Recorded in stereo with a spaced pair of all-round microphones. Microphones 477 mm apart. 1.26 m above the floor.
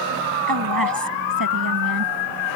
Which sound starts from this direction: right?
A woman speaking, at 0.5 s.